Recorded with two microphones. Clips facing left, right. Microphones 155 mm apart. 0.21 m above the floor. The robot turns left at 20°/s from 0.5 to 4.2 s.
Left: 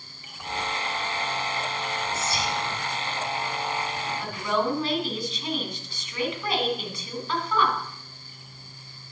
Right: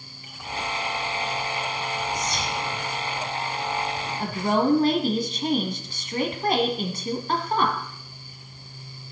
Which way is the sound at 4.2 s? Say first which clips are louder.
Right 5 dB; 50° right (ahead or behind).